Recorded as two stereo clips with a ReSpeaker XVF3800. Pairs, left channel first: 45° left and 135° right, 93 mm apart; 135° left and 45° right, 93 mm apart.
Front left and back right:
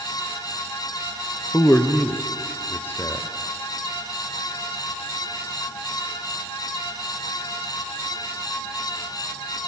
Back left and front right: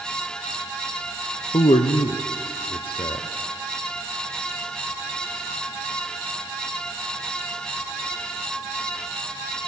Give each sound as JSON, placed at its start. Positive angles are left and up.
{"t": 1.5, "sound": "a man speaking", "azimuth_deg": 110, "distance_m": 0.5}